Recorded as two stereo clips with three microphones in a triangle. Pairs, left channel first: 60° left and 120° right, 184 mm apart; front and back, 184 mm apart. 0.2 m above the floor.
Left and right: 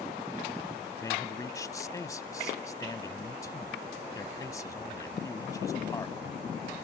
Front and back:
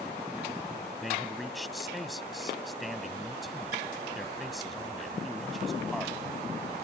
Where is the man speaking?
90° left.